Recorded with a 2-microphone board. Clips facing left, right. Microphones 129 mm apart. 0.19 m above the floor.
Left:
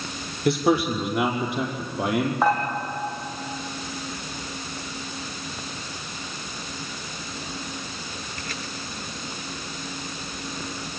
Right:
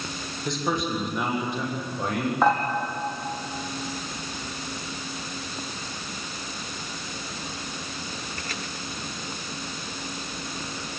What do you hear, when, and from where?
0.5 s a man speaking: 70° left (ahead or behind), 4.5 m; by 2.3 s 80° left, 5.5 m
2.4 s dishes clattering: 5° left (ahead or behind), 5 m